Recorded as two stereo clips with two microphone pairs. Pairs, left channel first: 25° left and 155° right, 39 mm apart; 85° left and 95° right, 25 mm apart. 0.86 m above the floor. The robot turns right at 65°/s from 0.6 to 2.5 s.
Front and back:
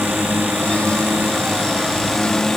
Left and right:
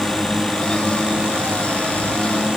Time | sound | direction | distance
0.0 | a drone | 170° right | ?